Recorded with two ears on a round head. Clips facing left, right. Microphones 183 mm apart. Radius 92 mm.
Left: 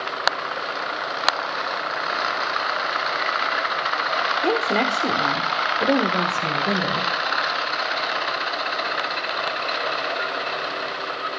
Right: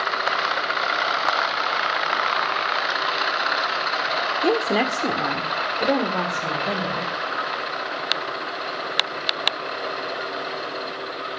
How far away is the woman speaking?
About 1.4 m.